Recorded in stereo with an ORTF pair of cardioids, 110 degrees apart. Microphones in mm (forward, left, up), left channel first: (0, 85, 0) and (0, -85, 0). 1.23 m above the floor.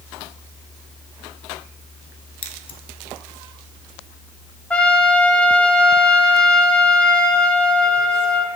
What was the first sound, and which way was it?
Scissors, 30° left.